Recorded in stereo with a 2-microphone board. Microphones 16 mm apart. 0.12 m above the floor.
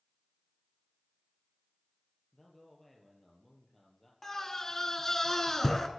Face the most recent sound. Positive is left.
turn(degrees=25)  # may be behind; listen again after turning